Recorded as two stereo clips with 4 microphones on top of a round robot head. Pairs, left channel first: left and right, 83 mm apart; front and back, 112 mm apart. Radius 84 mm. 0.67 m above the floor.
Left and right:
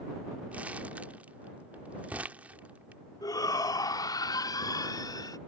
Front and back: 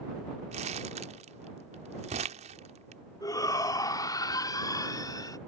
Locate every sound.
0.5 s crumpling: 165° right
3.2 s a shout: 55° left